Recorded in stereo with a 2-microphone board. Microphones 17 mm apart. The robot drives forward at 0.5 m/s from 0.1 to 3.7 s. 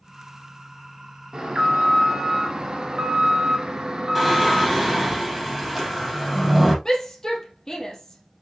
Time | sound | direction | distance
1.3 | an alarm | 30° right (ahead or behind) | 1.9 m
4.2 | singing | 5° left (ahead or behind) | 3.5 m
6.8 | a shout | 35° left (ahead or behind) | 3 m